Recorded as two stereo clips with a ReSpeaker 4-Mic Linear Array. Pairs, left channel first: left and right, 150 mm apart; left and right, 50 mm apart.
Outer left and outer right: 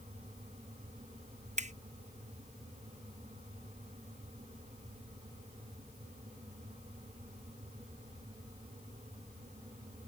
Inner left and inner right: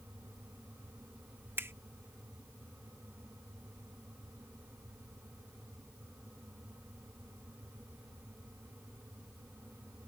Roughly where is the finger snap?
Right.